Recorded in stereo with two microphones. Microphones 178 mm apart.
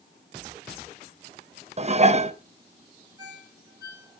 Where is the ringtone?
20° right (ahead or behind), 5 m.